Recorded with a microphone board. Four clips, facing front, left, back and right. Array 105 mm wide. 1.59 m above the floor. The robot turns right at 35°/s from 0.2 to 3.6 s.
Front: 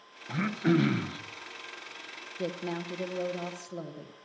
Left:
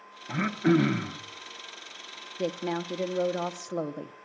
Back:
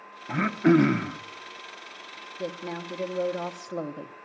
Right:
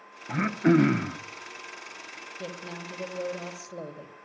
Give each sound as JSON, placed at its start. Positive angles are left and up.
{"t": 0.3, "sound": "throat clearing", "azimuth_deg": -170, "distance_m": 0.7}
{"t": 2.4, "sound": "a woman speaking", "azimuth_deg": 75, "distance_m": 1.0}